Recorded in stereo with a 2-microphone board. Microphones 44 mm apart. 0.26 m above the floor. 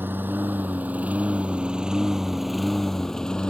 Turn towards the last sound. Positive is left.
turn(degrees=20)  # may be behind; listen again after turning